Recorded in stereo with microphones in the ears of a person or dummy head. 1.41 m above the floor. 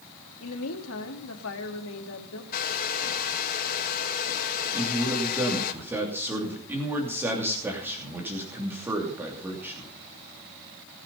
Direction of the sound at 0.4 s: 80° left.